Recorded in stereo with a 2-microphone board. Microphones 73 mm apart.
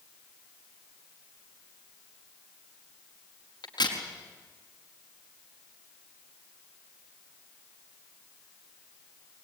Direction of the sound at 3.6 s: 75° left (ahead or behind).